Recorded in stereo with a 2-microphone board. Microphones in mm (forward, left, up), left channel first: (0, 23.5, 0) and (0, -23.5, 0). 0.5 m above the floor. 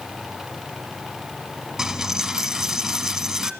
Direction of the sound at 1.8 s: 5° right (ahead or behind).